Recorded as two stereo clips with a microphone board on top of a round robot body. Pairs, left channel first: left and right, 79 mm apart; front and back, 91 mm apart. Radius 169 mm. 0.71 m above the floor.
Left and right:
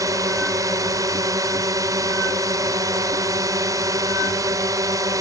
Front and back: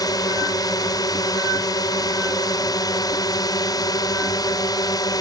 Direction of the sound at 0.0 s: 45° right.